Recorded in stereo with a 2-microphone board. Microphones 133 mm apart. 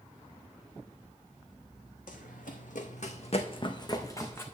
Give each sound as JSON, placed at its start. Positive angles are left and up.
{"t": 2.1, "sound": "running footsteps", "side_deg": 80, "distance_m": 1.1}